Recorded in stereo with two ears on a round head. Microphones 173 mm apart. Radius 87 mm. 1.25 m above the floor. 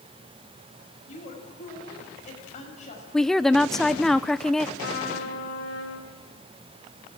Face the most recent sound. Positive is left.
turn(degrees=65)  # may be behind; listen again after turning